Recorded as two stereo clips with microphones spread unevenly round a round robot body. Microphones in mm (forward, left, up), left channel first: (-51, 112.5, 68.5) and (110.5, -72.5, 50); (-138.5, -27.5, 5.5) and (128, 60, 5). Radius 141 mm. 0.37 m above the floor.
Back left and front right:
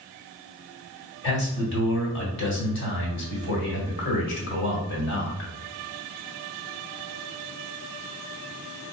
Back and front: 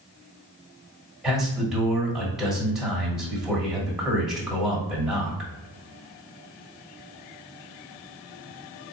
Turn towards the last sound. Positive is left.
turn(degrees=105)